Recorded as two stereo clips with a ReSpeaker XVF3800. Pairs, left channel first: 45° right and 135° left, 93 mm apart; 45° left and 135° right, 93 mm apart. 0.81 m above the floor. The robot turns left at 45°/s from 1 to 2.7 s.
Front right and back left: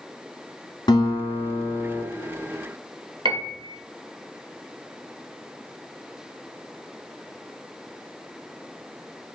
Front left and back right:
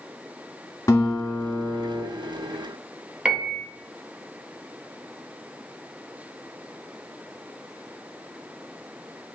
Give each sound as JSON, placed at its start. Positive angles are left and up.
{"t": 0.9, "sound": "a guitar", "azimuth_deg": 0, "distance_m": 1.4}
{"t": 3.2, "sound": "a piano", "azimuth_deg": 145, "distance_m": 0.8}